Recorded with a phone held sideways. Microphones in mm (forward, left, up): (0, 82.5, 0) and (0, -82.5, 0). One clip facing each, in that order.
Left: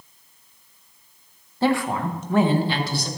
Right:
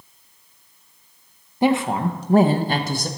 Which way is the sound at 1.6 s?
15° right (ahead or behind).